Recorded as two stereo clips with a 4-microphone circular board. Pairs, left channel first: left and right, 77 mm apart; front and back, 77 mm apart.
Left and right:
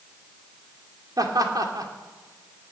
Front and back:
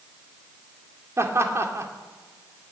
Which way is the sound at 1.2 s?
130° right.